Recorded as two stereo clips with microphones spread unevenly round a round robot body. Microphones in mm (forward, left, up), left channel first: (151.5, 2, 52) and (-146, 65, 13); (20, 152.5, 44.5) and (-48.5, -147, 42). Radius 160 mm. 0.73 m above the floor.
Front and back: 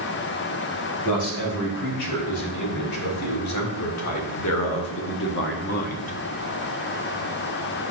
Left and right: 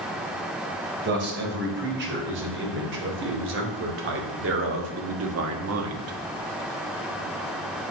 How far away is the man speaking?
About 3.5 m.